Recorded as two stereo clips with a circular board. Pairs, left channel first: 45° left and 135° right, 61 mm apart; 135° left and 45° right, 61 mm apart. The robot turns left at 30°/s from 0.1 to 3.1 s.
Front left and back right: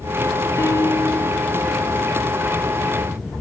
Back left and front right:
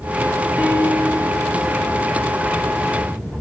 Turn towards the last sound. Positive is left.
turn(degrees=-50)